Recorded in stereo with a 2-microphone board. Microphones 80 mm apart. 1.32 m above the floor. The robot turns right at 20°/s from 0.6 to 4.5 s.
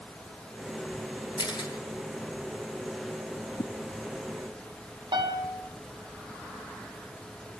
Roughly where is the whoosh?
Left.